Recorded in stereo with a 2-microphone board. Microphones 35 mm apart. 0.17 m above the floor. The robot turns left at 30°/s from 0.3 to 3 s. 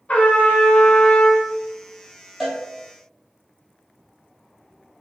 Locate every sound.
0.1 s a trumpet: 110° left, 0.6 m; by 1.5 s 75° left, 0.6 m
2.4 s a cowbell: 5° right (ahead or behind), 0.9 m; by 2.6 s 10° right (ahead or behind), 0.9 m